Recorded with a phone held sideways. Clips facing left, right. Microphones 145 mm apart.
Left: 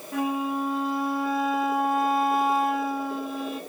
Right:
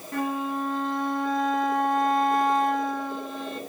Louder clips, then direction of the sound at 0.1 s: Left 1 dB; 5° left (ahead or behind).